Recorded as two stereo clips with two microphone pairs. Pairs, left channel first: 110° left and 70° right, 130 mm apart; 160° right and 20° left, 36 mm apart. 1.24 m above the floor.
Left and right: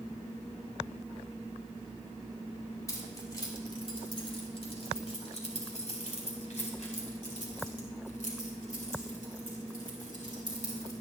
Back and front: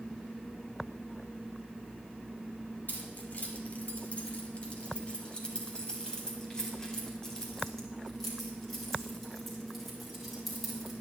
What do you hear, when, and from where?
2.9 s keys jangling: 170° left, 2.5 m; by 10.9 s 110° left, 5.5 m